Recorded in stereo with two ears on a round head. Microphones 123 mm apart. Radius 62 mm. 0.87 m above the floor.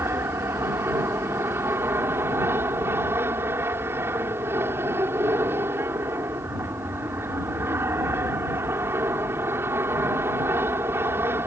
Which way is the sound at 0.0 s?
15° right (ahead or behind).